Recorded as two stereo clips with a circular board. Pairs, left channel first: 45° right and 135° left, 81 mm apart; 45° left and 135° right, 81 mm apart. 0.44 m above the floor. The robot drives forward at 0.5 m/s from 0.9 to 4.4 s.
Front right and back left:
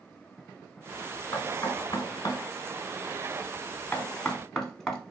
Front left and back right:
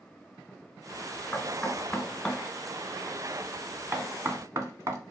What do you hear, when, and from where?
1.3 s knocking: 15° right, 1.4 m; by 5.0 s 130° right, 0.8 m